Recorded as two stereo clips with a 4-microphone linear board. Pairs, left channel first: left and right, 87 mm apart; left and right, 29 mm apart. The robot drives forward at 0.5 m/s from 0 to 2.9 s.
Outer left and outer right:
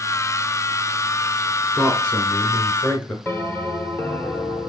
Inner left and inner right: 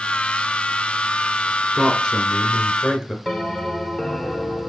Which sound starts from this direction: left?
A bell, at 3.2 s.